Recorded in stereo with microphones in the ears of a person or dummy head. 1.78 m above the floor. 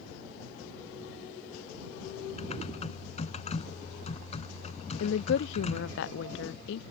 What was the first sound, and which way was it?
Typing on a keyboard, 30° left (ahead or behind).